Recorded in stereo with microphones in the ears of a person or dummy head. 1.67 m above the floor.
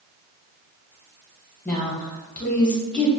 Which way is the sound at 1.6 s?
5° left (ahead or behind).